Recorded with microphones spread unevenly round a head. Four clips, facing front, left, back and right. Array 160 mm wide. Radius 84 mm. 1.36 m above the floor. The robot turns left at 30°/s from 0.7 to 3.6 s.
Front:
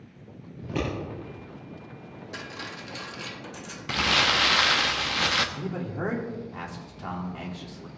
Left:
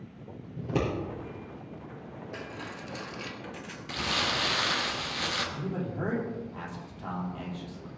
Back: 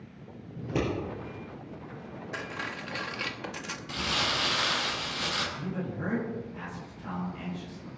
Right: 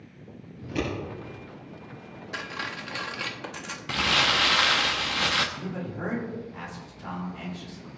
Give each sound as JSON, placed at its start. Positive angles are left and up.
{"t": 0.6, "sound": "scissors", "azimuth_deg": 110, "distance_m": 5.5}
{"t": 2.3, "sound": "cutlery clinking", "azimuth_deg": -95, "distance_m": 1.1}
{"t": 3.9, "sound": "crumpling", "azimuth_deg": -25, "distance_m": 0.9}
{"t": 5.5, "sound": "a man speaking", "azimuth_deg": 20, "distance_m": 3.0}